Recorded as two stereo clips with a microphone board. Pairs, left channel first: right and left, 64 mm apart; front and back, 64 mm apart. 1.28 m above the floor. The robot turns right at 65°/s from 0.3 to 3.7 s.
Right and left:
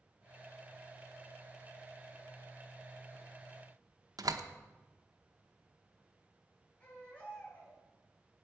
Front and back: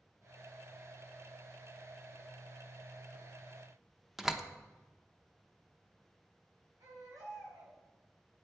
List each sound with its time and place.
4.2 s a door slam: 95° left, 0.8 m
6.8 s a baby crying: 160° right, 6 m